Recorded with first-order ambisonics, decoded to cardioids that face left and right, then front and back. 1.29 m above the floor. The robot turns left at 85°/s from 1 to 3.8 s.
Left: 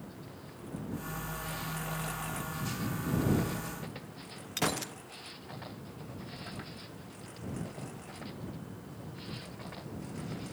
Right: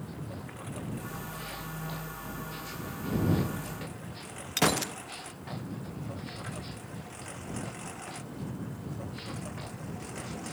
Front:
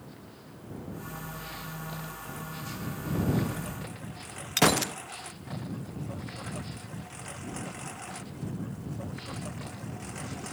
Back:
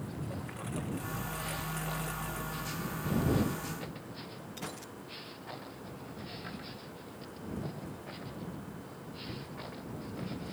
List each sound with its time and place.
0.0 s a lawn mower: 145° right; by 10.6 s 30° right
4.6 s a gunshot: 20° right